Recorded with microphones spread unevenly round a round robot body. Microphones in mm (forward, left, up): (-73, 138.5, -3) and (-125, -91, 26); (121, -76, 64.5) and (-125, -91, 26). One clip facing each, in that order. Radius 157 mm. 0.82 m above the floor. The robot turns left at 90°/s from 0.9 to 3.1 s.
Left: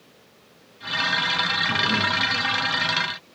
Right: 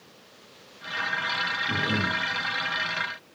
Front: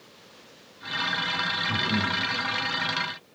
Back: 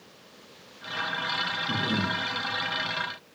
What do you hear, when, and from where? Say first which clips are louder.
1.7 s breathing: left 1 dB, even; straight behind, 4 m; by 2.2 s 135° left, 4 m